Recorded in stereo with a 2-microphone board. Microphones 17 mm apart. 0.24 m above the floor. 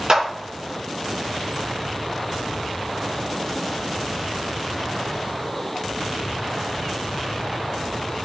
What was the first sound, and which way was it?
A clap, 35° right (ahead or behind).